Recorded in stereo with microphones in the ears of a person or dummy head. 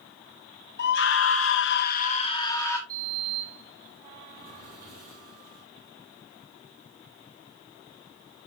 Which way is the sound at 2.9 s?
50° right (ahead or behind).